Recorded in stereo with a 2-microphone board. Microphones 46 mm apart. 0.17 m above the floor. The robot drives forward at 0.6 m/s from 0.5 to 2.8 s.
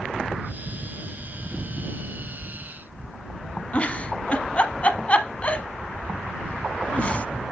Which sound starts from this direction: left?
A giggle, at 3.7 s.